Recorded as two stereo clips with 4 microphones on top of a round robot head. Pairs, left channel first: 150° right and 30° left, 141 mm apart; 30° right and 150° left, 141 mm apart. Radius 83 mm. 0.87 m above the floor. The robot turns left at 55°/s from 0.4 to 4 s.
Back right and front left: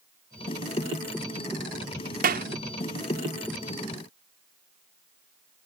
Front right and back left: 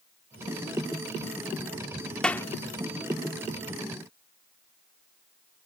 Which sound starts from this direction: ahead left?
A clap, at 2.2 s.